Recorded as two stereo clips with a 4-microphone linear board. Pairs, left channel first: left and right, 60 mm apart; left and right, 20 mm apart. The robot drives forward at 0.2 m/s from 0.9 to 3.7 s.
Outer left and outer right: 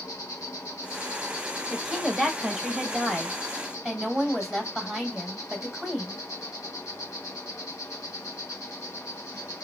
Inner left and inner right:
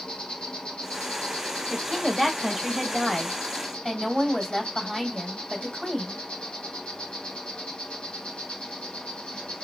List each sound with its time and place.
0.0 s an insect: 80° left, 1.0 m; by 9.7 s 70° left (ahead or behind), 1.1 m
1.7 s a woman speaking: 5° right (ahead or behind), 0.9 m